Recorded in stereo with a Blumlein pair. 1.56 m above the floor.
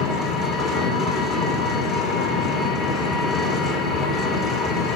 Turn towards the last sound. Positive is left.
turn(degrees=30)